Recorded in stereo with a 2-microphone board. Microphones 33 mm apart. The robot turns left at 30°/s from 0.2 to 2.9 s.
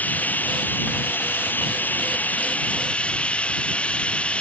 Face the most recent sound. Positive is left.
turn(degrees=40)